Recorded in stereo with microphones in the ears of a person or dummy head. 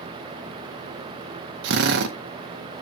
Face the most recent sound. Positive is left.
turn(degrees=-60)  # may be behind; listen again after turning